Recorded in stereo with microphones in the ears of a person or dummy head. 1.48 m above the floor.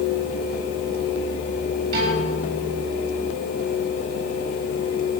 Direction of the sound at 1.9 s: 55° right (ahead or behind).